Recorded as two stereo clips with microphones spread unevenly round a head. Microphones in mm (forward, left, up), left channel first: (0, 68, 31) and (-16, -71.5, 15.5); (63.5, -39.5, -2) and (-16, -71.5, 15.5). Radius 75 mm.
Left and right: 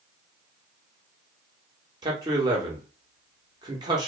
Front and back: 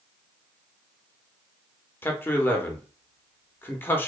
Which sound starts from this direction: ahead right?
A man speaking, at 2.0 s.